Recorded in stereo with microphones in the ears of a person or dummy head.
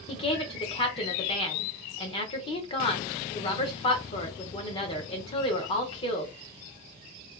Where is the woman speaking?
30° left (ahead or behind), 1.0 m.